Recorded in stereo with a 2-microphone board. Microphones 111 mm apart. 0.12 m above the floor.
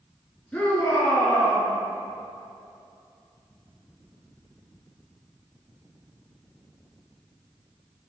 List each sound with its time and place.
0.5 s a shout: 10° left (ahead or behind), 1.4 m